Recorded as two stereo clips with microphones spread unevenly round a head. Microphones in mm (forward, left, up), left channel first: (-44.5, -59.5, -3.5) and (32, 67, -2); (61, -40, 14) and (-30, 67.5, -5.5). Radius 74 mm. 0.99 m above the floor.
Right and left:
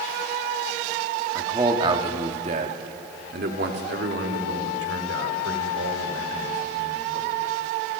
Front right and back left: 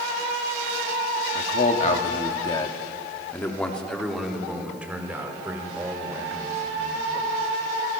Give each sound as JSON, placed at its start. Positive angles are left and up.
{"t": 1.4, "sound": "a man speaking", "azimuth_deg": -15, "distance_m": 2.0}